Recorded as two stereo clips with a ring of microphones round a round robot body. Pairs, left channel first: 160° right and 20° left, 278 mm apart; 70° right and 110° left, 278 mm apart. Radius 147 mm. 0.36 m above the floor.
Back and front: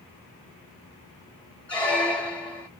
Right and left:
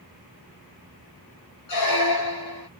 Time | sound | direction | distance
1.7 | a squeak | 70° right | 1.1 m